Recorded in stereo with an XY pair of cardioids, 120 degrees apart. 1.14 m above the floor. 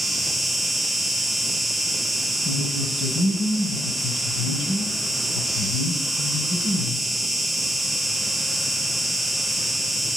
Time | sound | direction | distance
0.0 | an insect | 10° left | 1.4 m
2.5 | a woman speaking | 60° left | 6.5 m